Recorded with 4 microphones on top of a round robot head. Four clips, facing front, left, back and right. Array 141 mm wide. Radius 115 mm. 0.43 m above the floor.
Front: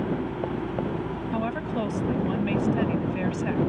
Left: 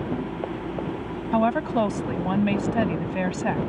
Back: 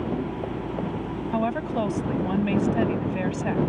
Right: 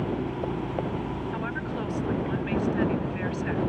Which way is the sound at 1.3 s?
100° left.